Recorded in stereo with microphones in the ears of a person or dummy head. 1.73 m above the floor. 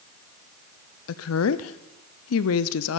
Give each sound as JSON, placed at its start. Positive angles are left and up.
{"t": 1.1, "sound": "a woman speaking", "side_deg": 85, "distance_m": 0.8}